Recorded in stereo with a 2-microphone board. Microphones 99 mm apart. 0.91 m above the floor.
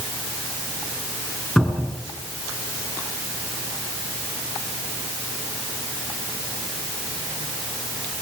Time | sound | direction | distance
1.6 | a cupboard door | 5° left (ahead or behind) | 5 m